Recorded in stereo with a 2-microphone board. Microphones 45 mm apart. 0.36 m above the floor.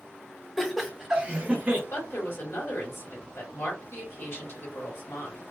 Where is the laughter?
5° left (ahead or behind), 1.3 m; by 1.8 s 40° right (ahead or behind), 1.1 m.